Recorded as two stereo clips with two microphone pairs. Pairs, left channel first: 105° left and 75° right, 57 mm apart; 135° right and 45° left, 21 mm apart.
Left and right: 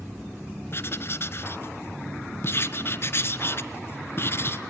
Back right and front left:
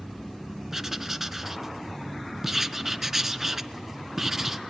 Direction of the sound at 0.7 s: 110° left.